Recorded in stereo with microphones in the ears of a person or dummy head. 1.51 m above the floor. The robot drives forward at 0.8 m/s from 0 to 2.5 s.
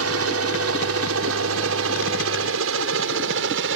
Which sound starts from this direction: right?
A helicopter, at 0.0 s.